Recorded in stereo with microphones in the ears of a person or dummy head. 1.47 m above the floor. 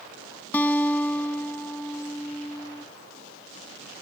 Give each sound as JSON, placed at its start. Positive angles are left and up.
{"t": 0.5, "sound": "a guitar", "side_deg": 10}